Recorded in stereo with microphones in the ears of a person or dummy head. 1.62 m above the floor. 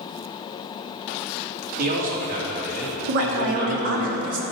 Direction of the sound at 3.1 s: 55° right (ahead or behind).